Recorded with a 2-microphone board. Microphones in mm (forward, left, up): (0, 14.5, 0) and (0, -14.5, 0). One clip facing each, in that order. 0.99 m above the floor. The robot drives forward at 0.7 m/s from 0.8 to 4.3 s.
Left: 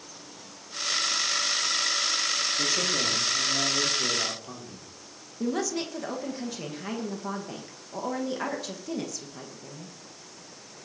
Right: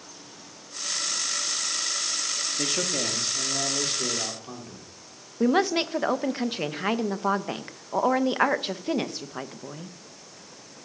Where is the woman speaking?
45° right (ahead or behind), 1.0 m.